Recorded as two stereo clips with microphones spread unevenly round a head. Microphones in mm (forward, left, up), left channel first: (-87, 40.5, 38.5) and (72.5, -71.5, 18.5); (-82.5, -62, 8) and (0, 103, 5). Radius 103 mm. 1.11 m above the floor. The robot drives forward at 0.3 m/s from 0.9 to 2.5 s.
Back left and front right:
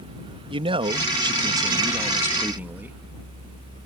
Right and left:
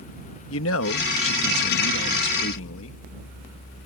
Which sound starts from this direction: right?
A man speaking, at 0.5 s.